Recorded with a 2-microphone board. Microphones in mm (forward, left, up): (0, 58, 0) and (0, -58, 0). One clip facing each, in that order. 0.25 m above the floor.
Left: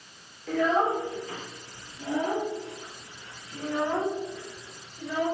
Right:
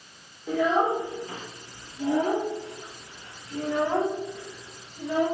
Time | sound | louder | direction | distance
0.5 | a child speaking | right 1 dB | 15° right (ahead or behind) | 3.5 m